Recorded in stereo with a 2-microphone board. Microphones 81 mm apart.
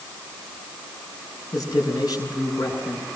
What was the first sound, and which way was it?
A man speaking, 55° left (ahead or behind).